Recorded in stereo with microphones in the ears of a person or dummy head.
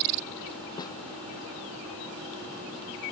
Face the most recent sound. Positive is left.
turn(degrees=25)  # may be behind; listen again after turning